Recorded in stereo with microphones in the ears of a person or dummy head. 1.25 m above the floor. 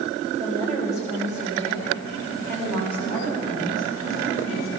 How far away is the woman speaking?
About 7.5 m.